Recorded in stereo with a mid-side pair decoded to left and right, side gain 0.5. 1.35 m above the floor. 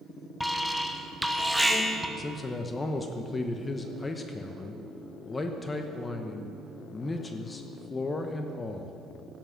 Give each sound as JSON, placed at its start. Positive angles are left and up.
{"t": 0.4, "sound": "an alarm", "azimuth_deg": 0, "distance_m": 1.0}
{"t": 2.2, "sound": "a man speaking", "azimuth_deg": 25, "distance_m": 0.8}